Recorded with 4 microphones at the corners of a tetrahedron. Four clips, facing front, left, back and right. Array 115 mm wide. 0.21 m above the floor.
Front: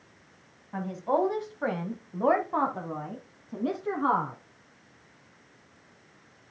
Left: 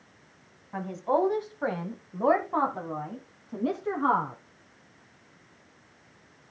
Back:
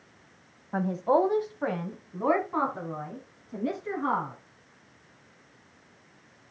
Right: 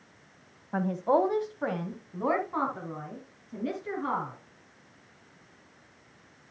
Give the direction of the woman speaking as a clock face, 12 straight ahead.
5 o'clock.